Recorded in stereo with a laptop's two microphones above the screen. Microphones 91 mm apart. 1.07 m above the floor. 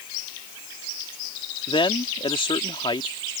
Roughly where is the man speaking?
Left.